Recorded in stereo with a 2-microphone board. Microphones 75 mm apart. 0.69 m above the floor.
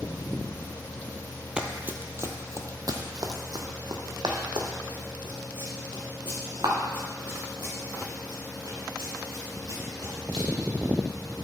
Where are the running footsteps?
10° right (ahead or behind), 0.9 m; by 10.4 s 75° right (ahead or behind), 5 m.